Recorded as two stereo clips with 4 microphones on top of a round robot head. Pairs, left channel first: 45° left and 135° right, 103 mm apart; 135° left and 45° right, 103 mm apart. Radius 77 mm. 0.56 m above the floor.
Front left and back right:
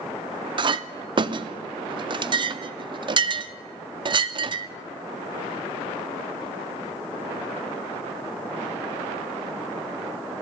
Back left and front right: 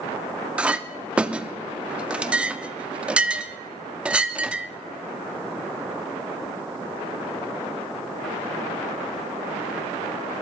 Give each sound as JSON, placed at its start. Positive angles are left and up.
{"t": 0.6, "sound": "a clink", "azimuth_deg": -120, "distance_m": 0.5}